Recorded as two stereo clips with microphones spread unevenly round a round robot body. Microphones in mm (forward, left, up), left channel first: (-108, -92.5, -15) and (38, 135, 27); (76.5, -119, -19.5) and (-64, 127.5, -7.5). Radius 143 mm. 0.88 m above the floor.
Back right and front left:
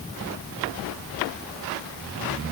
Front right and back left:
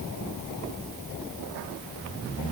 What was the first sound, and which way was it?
Only background noise.